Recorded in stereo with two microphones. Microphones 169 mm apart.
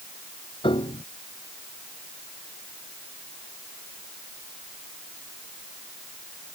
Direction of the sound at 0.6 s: 30° left (ahead or behind).